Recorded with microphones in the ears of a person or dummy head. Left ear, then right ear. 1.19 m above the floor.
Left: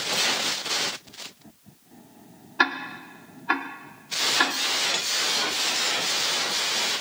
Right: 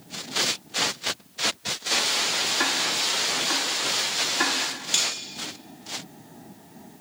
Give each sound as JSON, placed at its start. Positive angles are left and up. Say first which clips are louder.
{"t": 2.6, "sound": "ticking", "louder": "right 1 dB", "side_deg": 40, "distance_m": 1.2}
{"t": 4.9, "sound": "cutlery clinking", "louder": "right 3 dB", "side_deg": -5, "distance_m": 1.3}